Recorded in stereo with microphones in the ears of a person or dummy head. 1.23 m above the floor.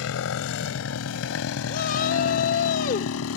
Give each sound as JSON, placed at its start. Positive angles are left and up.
{"t": 0.0, "sound": "a motorcycle", "side_deg": 75}
{"t": 1.7, "sound": "a shout", "side_deg": 50}